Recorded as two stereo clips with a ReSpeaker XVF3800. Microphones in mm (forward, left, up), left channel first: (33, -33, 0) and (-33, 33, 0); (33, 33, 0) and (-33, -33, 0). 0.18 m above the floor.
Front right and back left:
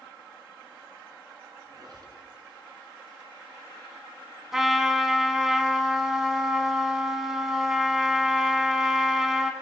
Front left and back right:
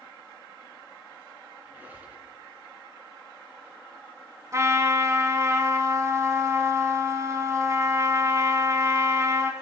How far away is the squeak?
About 1.6 m.